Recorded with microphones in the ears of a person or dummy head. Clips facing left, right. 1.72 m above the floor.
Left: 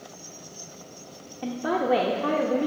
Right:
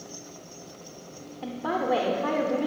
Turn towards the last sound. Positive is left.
turn(degrees=25)  # may be behind; listen again after turning